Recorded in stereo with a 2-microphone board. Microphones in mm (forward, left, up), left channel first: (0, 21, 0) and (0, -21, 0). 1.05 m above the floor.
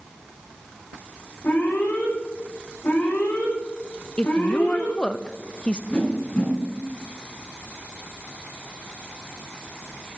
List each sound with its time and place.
1.4 s an alarm: 60° left (ahead or behind), 5 m
4.2 s a woman speaking: 20° left (ahead or behind), 0.5 m
5.9 s a whoosh: 25° left (ahead or behind), 6.5 m